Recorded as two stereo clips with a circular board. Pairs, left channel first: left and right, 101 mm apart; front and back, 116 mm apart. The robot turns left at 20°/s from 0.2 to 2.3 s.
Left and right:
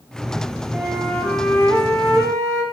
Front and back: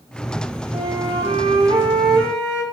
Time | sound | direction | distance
0.7 | a flute | 175° left | 1.6 m